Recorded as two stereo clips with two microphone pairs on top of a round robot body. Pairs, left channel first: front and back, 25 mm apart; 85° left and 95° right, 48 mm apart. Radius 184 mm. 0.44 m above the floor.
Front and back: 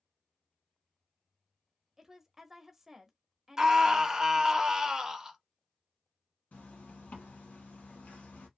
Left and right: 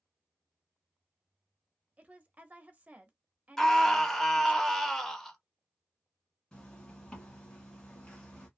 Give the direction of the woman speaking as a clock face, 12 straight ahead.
4 o'clock.